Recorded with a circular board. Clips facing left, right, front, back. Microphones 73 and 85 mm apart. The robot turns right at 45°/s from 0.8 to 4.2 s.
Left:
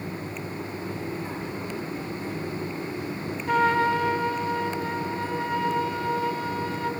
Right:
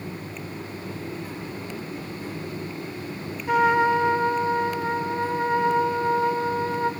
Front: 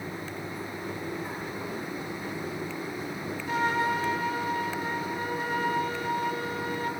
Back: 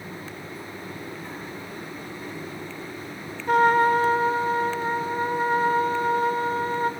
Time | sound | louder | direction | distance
3.5 | a trumpet | right 2 dB, back 9 dB | 175° right | 0.5 m